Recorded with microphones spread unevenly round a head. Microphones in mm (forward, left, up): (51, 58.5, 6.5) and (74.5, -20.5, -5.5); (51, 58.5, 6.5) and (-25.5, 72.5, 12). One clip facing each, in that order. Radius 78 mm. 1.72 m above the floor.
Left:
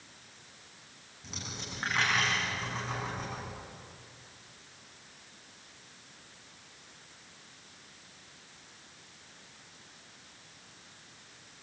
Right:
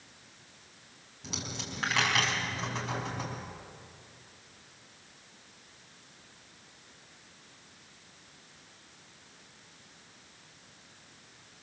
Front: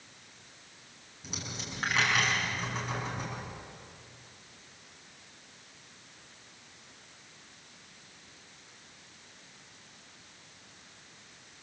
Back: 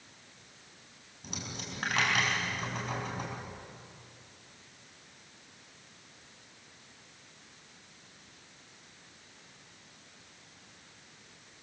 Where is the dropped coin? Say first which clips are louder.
Right 3 dB, even; 125° right, 4.5 m.